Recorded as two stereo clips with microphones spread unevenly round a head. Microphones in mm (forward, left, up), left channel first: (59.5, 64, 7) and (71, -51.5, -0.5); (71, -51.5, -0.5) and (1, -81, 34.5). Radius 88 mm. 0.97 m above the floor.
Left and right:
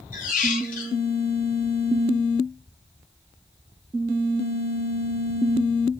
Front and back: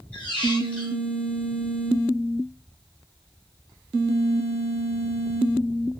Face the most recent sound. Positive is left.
turn(degrees=105)